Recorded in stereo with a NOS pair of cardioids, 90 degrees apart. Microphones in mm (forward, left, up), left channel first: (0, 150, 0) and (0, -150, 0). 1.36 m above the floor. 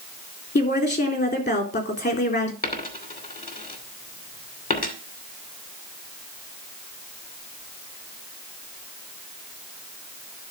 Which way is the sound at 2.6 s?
30° left.